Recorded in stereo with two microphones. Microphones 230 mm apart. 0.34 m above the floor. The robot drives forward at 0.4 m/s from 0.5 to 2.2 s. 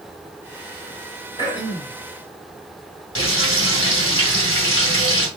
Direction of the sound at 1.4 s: 20° left (ahead or behind).